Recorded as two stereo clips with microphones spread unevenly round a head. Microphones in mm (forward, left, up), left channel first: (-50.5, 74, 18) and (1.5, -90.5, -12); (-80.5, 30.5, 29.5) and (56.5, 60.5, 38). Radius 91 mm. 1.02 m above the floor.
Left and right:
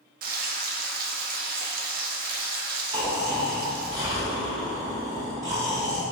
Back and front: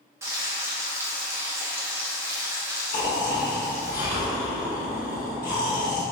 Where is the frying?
60° right, 0.7 m.